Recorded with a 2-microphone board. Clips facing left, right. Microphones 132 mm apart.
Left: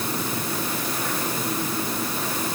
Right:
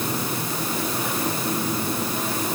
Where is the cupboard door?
I don't hear a cupboard door.